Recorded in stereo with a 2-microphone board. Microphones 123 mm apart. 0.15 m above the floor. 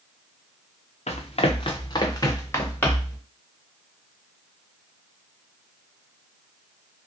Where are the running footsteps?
65° left (ahead or behind), 0.8 m; by 3.2 s 10° left (ahead or behind), 1.4 m.